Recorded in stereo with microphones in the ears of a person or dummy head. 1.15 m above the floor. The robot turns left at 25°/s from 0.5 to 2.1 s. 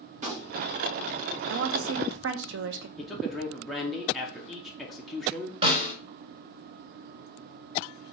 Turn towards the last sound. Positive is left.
turn(degrees=-30)  # may be behind; listen again after turning